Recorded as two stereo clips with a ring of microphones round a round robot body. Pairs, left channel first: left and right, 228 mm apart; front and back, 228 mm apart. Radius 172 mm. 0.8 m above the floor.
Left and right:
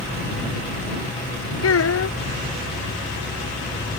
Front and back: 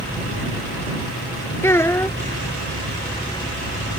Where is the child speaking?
80° left.